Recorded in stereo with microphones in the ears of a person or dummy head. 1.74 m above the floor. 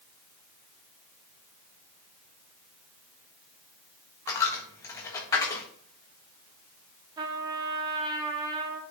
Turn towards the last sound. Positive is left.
turn(degrees=-25)  # may be behind; listen again after turning